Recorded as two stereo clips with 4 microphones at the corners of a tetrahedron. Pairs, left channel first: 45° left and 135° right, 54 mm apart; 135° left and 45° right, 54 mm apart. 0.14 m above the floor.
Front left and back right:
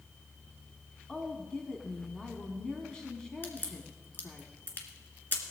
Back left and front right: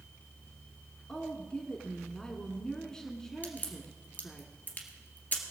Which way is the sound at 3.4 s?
85° left.